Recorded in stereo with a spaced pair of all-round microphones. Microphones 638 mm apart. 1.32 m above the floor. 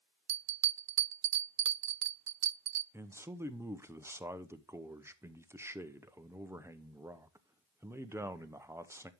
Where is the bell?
65° right (ahead or behind), 0.5 m.